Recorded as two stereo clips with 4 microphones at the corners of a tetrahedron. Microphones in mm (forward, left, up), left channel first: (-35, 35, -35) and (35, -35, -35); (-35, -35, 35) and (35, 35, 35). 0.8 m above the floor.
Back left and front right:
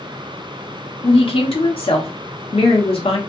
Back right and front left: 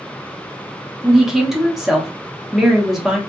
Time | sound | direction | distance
1.0 | a woman speaking | 130° left | 1.2 m